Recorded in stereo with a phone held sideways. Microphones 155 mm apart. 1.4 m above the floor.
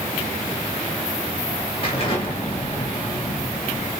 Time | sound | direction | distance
1.8 | an explosion | 40° left (ahead or behind) | 3 m